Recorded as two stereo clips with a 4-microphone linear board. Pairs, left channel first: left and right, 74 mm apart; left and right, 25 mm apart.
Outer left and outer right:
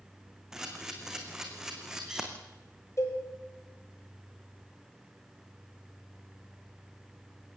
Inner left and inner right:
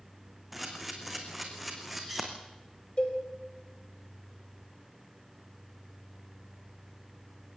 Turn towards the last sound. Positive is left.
turn(degrees=40)  # may be behind; listen again after turning